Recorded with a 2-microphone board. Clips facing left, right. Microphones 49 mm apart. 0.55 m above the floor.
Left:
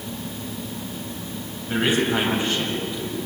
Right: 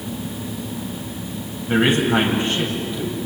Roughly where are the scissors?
No scissors in this recording.